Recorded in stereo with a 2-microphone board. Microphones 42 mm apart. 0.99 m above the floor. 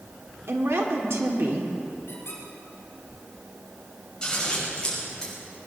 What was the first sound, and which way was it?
A woman speaking, 85° right.